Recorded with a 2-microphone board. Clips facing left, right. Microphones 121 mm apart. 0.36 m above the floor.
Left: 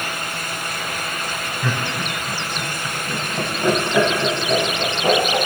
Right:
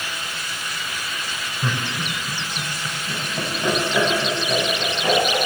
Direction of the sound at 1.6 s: 25° right (ahead or behind).